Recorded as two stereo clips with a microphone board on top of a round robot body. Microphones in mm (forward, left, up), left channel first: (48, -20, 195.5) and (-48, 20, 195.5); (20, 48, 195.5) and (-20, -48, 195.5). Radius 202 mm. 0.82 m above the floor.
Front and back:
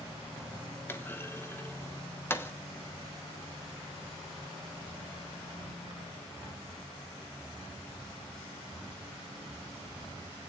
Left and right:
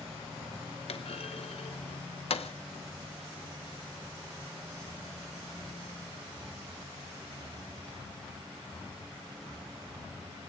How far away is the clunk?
About 1.5 m.